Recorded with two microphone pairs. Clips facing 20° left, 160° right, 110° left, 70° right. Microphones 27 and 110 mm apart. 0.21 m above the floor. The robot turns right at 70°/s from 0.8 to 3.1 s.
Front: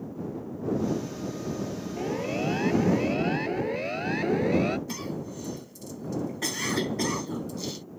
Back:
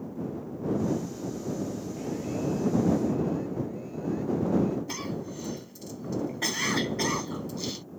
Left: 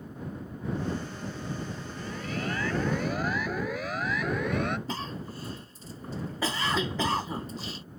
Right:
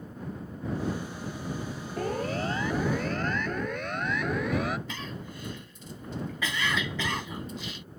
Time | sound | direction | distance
2.0 | a siren | 45° right | ?
4.9 | a cough | 130° left | ?